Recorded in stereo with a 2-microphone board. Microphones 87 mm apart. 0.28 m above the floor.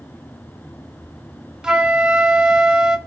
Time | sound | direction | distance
1.6 | a flute | 10° right (ahead or behind) | 0.9 m